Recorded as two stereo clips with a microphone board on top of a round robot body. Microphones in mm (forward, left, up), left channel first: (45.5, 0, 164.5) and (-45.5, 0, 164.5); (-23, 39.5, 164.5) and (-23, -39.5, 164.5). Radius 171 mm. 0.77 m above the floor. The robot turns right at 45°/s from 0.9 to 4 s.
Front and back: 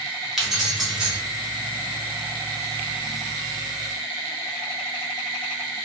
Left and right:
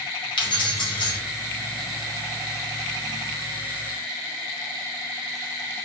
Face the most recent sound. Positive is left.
turn(degrees=-125)